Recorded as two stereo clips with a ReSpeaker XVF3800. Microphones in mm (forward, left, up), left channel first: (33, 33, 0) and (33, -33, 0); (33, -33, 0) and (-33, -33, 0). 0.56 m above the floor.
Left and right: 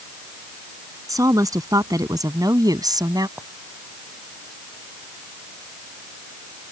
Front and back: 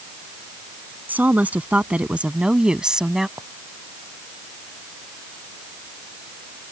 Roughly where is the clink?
Behind right.